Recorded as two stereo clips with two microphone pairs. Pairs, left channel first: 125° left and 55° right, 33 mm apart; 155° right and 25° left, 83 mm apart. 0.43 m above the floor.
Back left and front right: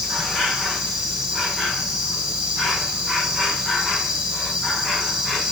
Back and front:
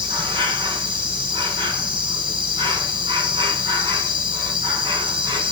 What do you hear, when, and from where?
0.0 s an insect: 20° left, 5.5 m